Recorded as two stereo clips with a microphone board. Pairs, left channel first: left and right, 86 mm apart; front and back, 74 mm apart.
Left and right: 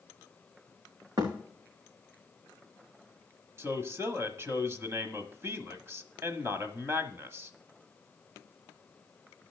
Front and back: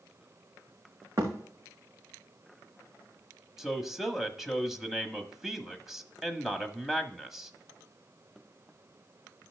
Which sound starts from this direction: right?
A man speaking, at 3.6 s.